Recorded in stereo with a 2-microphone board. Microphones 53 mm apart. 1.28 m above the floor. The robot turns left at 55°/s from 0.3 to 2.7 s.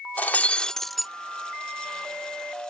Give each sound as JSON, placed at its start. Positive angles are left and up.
{"t": 0.2, "sound": "breaking glass", "azimuth_deg": 40}